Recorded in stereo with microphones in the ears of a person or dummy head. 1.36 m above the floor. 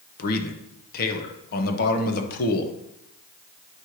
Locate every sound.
0.2 s a man speaking: 50° left (ahead or behind), 1.1 m